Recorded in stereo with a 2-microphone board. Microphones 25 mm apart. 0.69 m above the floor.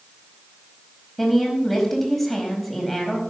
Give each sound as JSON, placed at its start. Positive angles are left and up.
{"t": 1.2, "sound": "a woman speaking", "side_deg": 5, "distance_m": 4.5}